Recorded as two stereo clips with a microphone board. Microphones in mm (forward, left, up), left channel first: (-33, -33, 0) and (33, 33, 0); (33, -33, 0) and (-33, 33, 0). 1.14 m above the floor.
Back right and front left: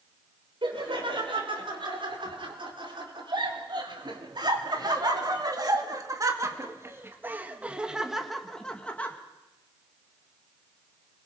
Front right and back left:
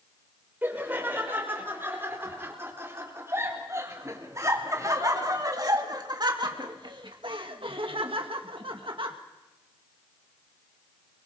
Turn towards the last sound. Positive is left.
turn(degrees=155)